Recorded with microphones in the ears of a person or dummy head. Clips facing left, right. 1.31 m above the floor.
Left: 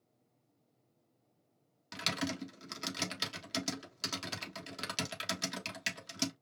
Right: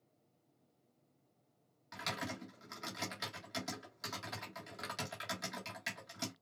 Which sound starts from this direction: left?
Typing on a keyboard, at 1.9 s.